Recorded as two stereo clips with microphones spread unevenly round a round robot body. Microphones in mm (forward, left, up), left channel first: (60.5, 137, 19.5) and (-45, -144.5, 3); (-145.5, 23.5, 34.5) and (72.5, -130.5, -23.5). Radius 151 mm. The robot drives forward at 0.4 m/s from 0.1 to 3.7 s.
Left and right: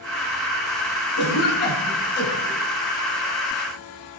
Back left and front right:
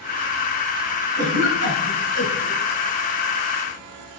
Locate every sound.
1.2 s a cough: 10° left, 5 m